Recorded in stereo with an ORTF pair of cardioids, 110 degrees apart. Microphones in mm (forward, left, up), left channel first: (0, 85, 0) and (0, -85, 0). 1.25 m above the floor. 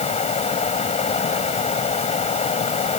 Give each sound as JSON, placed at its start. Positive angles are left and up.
{"t": 0.0, "sound": "running water", "azimuth_deg": 40}